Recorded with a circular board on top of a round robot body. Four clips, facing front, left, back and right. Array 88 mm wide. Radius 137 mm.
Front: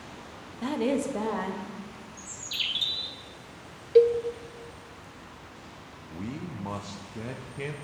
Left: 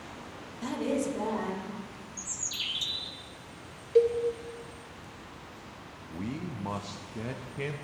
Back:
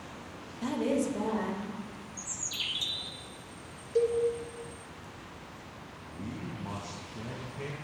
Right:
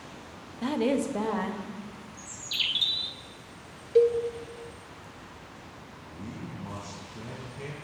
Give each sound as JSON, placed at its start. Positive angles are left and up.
{"t": 0.6, "sound": "a woman speaking", "azimuth_deg": -65, "distance_m": 0.9}
{"t": 2.2, "sound": "a bird", "azimuth_deg": -65, "distance_m": 0.7}
{"t": 4.0, "sound": "a cowbell", "azimuth_deg": -5, "distance_m": 0.7}
{"t": 6.1, "sound": "a man speaking", "azimuth_deg": 45, "distance_m": 0.7}